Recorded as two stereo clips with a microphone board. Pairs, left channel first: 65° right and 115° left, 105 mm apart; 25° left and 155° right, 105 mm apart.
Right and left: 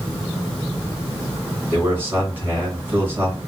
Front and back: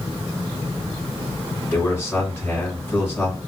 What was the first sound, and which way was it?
A man speaking, 70° left.